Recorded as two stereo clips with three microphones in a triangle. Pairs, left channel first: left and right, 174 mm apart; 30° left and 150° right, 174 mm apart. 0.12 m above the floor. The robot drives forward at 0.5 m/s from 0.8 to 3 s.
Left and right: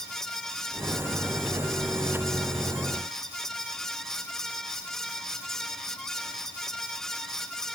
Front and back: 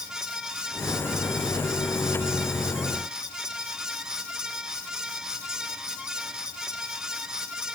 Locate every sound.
Only background noise.